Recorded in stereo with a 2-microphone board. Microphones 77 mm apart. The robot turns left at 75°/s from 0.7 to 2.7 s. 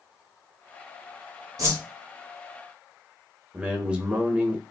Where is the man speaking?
15° right (ahead or behind), 0.9 m.